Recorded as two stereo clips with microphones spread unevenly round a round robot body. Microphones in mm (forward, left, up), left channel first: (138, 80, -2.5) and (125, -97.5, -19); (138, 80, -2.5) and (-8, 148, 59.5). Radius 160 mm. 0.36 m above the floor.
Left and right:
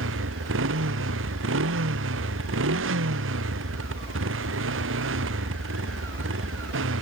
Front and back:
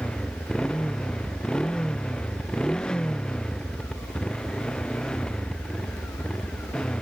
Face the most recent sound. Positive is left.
turn(degrees=-115)